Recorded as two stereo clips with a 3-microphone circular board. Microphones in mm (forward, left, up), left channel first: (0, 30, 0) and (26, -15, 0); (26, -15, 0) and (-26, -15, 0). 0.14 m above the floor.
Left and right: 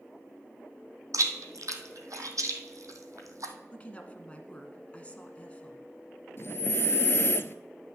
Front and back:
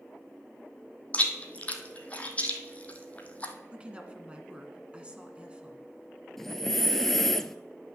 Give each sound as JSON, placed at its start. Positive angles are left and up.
{"t": 1.1, "sound": "chewing", "azimuth_deg": -65, "distance_m": 1.4}
{"t": 3.7, "sound": "a woman speaking", "azimuth_deg": 145, "distance_m": 1.5}
{"t": 6.4, "sound": "breathing", "azimuth_deg": 85, "distance_m": 0.5}